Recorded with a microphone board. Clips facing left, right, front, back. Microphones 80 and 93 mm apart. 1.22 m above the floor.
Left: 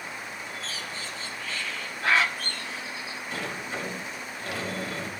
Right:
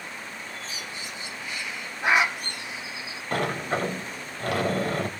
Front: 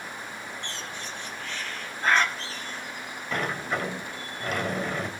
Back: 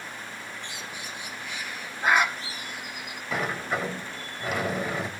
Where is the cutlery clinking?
No cutlery clinking in this recording.